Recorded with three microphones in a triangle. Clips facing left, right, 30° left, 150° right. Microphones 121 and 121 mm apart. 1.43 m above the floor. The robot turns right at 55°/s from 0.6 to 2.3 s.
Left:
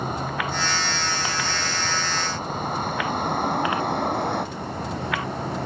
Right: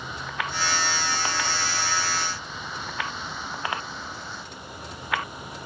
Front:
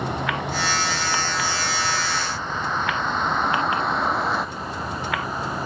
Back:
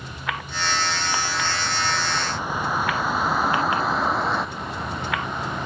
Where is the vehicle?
50° left; by 5.7 s 115° left.